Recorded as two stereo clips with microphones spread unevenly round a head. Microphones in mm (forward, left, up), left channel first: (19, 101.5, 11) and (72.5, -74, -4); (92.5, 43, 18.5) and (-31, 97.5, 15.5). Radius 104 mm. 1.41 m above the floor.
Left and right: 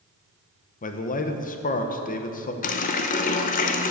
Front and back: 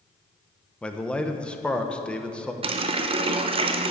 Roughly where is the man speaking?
Ahead left.